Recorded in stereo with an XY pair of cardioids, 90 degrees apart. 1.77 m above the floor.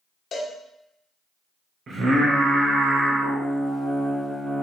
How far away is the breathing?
I don't hear breathing.